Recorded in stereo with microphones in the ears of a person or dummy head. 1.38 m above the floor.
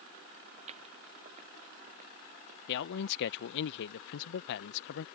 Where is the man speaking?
65° left (ahead or behind).